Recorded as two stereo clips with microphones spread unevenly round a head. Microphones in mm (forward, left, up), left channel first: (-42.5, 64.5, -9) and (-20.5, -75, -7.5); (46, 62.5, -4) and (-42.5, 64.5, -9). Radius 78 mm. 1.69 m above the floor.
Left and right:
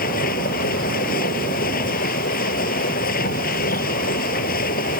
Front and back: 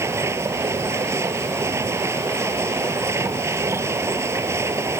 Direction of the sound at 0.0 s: 120° left.